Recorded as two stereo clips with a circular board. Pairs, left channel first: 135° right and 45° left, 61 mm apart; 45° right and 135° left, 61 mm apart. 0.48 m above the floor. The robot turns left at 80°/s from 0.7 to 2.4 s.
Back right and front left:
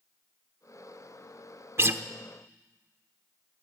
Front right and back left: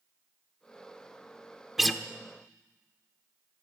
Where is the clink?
No clink in this recording.